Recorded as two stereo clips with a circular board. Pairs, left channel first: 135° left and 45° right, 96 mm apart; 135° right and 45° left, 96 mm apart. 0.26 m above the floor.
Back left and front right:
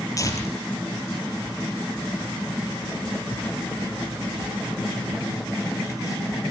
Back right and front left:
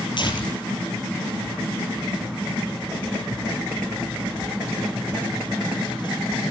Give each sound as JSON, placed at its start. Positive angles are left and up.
{"t": 0.2, "sound": "tearing paper", "azimuth_deg": -170, "distance_m": 5.5}